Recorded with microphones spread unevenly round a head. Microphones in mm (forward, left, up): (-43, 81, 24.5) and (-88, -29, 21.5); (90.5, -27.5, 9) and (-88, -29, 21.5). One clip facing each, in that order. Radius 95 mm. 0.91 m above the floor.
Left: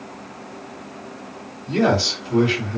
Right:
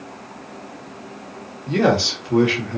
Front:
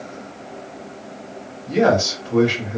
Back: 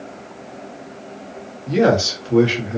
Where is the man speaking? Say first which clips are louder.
Right 1 dB, back 1 dB; 130° right, 1.3 m.